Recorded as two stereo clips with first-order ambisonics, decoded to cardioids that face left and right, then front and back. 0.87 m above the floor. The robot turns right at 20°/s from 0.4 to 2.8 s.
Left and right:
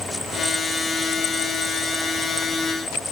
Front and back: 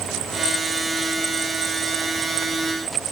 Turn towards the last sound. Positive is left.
No sound to turn to.